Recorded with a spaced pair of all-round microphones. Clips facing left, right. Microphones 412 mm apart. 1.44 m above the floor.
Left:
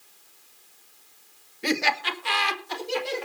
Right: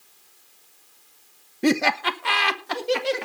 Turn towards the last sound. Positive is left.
turn(degrees=-80)